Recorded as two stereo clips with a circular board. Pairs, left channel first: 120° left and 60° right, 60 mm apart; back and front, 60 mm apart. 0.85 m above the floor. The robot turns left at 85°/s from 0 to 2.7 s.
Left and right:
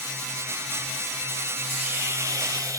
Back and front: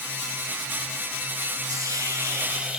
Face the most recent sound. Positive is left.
turn(degrees=-80)